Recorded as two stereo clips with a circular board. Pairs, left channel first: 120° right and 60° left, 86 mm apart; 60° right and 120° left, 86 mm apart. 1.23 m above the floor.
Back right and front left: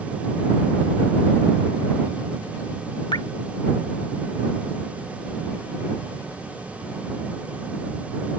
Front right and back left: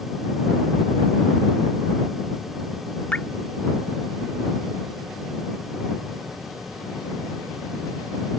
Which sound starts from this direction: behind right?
Dripping, at 3.1 s.